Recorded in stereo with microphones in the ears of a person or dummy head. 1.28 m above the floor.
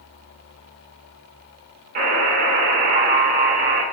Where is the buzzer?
40° right (ahead or behind), 1.0 m.